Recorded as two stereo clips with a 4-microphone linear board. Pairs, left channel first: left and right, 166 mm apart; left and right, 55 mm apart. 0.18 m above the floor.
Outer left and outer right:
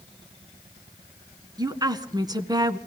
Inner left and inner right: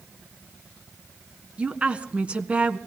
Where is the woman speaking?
25° right (ahead or behind), 1.6 m.